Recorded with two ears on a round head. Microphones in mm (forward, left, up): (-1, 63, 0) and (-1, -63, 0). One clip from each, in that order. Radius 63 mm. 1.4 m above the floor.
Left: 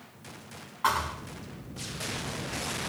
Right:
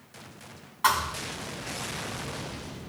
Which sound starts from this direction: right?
A thud, at 0.8 s.